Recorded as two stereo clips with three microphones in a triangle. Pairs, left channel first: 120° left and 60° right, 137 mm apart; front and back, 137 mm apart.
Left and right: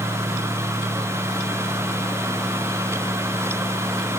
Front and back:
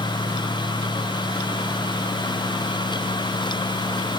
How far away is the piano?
I don't hear a piano.